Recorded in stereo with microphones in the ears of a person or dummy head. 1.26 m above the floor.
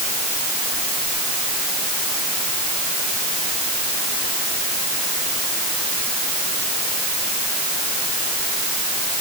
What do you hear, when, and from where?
Only background noise.